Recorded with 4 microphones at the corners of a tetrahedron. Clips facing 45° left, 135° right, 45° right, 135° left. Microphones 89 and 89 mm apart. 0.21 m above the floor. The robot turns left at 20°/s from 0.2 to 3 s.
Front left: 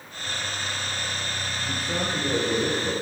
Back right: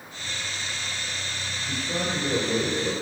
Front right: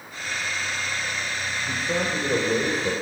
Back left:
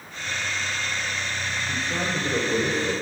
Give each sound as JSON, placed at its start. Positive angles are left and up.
{"t": 1.7, "sound": "a man speaking", "azimuth_deg": -35, "distance_m": 5.5}